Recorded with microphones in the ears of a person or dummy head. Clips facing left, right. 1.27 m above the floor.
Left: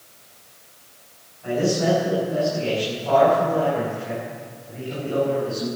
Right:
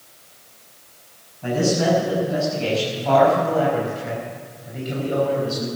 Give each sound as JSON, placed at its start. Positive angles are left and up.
{"t": 1.4, "sound": "a man speaking", "side_deg": -70, "distance_m": 7.0}